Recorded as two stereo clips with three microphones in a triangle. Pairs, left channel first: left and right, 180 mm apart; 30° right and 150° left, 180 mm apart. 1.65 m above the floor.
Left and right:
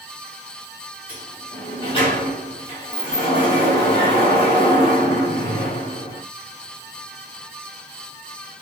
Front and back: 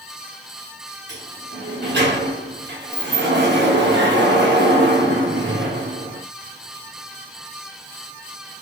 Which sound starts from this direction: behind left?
A sliding door, at 1.1 s.